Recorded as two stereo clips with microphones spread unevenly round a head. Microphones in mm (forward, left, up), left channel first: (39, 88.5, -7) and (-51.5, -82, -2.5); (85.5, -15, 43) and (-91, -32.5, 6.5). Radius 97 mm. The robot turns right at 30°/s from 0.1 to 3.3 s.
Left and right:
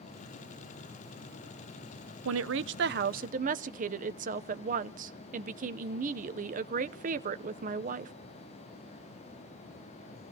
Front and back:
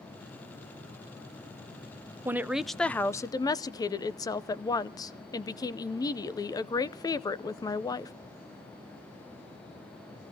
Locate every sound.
2.2 s a woman speaking: 95° right, 0.7 m; by 8.1 s 65° right, 0.7 m